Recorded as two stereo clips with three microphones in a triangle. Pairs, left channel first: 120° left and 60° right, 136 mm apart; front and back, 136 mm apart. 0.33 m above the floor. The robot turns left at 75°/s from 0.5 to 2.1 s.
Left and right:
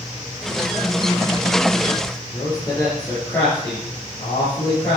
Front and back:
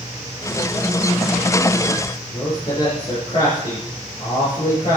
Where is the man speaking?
45° left, 5.5 m.